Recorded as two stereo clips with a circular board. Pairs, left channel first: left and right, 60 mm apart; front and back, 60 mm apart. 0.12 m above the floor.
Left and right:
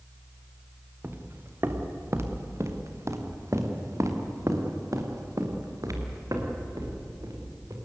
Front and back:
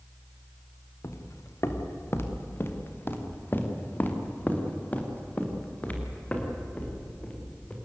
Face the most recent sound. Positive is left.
turn(degrees=-70)